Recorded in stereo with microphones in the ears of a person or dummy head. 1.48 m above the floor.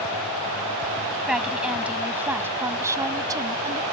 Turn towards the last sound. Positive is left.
turn(degrees=-20)  # may be behind; listen again after turning